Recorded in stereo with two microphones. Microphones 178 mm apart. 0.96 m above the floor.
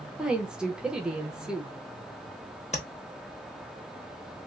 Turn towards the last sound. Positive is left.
turn(degrees=40)  # may be behind; listen again after turning